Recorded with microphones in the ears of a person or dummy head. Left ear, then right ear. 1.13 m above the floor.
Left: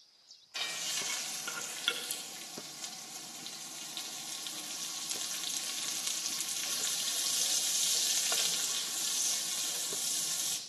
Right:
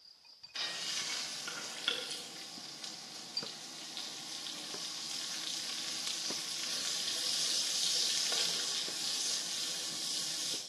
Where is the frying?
25° left (ahead or behind), 2.5 m.